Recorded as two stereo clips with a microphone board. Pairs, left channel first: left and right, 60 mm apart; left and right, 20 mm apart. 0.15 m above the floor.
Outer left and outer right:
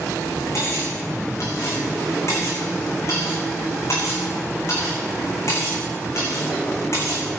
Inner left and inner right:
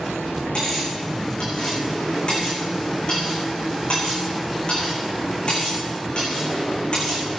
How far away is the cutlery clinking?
About 6 m.